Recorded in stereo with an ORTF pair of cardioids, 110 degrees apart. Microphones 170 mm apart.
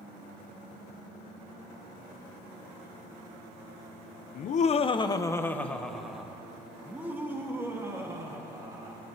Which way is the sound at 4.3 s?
55° left.